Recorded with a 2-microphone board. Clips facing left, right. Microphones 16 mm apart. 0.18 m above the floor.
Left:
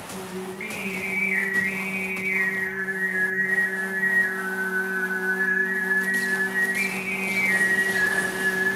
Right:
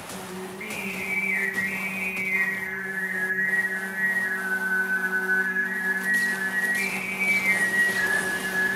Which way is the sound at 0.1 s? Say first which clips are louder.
Left 3 dB; 25° left (ahead or behind).